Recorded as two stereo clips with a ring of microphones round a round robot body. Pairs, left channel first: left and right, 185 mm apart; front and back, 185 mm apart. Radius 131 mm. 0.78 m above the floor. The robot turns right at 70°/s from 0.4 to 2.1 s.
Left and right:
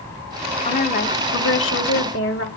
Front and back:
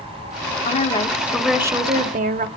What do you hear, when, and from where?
0.7 s a woman speaking: 35° left, 2.5 m; by 2.5 s 135° left, 2.5 m